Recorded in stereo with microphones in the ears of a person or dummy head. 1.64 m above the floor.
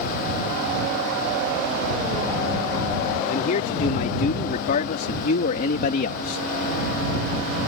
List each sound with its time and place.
3.3 s a man speaking: 55° left (ahead or behind)